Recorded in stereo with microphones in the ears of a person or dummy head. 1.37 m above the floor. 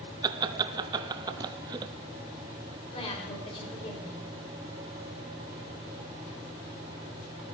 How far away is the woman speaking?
About 5 m.